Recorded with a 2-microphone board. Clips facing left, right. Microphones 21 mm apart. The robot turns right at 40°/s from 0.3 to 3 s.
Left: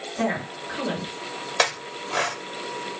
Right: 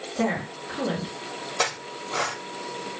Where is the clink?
40° left (ahead or behind), 0.9 m.